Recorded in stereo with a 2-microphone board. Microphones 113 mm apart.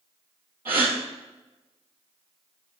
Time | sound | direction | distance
0.7 | a gasp | 20° right (ahead or behind) | 2 m